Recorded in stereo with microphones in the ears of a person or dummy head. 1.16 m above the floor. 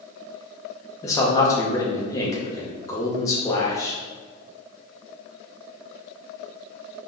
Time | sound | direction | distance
1.0 | a man speaking | 15° left (ahead or behind) | 0.5 m